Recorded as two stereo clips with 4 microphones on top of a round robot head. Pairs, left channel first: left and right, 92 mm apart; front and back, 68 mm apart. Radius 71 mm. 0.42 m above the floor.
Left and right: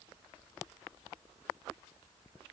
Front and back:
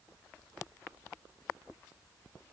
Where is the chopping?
No chopping in this recording.